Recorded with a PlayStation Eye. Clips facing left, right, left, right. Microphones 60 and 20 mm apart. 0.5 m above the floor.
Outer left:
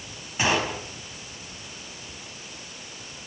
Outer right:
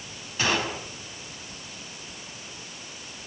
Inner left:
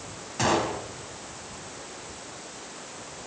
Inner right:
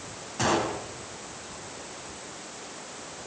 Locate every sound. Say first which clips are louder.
0.4 s a gunshot: outer left 2 dB, inner left 1 dB; 20° left (ahead or behind), 4.5 m